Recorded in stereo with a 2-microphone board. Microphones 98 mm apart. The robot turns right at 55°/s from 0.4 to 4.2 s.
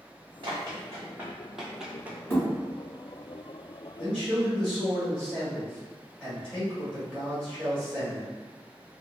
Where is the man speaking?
10° left (ahead or behind), 1.7 m; by 8.3 s centre (ahead or behind), 1.7 m.